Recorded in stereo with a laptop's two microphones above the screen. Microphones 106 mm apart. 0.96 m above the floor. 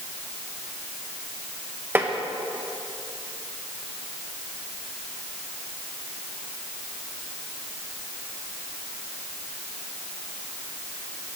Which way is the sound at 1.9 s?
20° right (ahead or behind).